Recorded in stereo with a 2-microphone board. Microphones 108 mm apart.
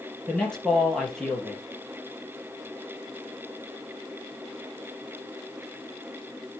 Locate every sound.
0.3 s a man speaking: 5° left (ahead or behind), 4 m